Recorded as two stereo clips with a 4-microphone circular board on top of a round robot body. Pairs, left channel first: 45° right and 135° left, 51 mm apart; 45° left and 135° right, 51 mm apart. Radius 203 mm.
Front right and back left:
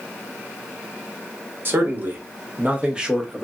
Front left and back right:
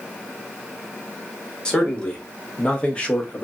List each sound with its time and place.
1.6 s a man speaking: 115° left, 1.4 m; by 3.5 s 55° left, 1.0 m